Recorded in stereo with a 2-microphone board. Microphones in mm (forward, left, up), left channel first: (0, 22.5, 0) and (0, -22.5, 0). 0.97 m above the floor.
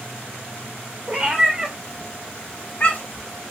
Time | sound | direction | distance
1.1 | a cat meowing | 25° right (ahead or behind) | 1.0 m